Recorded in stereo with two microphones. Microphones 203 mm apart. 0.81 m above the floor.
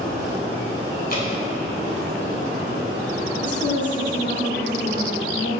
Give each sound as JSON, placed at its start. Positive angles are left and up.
{"t": 1.1, "sound": "dripping", "side_deg": 45, "distance_m": 3.0}
{"t": 3.4, "sound": "a woman speaking", "side_deg": 60, "distance_m": 2.5}